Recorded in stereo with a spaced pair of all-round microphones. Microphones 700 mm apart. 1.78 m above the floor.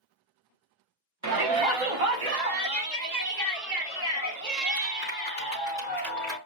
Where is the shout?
25° right (ahead or behind), 0.6 m; by 6.4 s 65° right (ahead or behind), 5 m.